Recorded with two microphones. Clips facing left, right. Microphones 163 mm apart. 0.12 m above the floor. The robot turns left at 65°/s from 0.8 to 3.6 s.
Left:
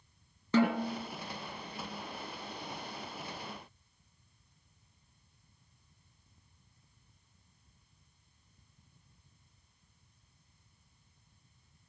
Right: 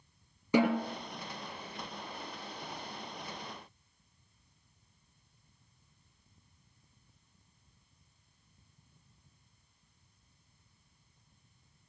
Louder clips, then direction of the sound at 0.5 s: Even; 15° right (ahead or behind).